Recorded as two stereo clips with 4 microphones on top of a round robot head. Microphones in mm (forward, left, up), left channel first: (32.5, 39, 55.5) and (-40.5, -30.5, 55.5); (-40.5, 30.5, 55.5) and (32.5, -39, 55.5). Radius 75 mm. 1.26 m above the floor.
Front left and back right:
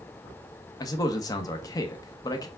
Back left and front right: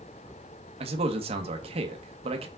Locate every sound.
0.8 s a man speaking: 10° right, 1.4 m